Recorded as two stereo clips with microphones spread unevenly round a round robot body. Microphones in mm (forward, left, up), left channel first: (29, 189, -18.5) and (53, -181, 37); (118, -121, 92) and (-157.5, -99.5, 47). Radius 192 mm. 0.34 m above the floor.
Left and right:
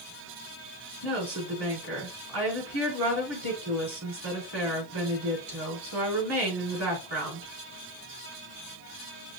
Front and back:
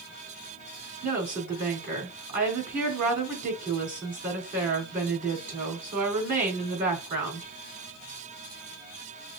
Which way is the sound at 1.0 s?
125° right.